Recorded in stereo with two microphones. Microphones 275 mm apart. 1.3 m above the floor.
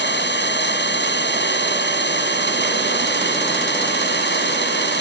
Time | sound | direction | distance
0.0 | an engine running | 40° left (ahead or behind) | ?